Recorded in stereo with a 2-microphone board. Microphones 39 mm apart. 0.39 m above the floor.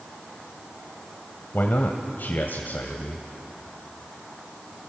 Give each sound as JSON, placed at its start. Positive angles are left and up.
{"t": 1.5, "sound": "a man speaking", "side_deg": 60, "distance_m": 1.6}